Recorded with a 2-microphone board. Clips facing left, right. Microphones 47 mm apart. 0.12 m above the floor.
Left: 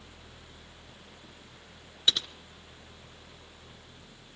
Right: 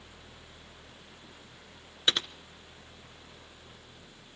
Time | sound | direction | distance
2.1 | typing on a keyboard | 40° right (ahead or behind) | 0.9 m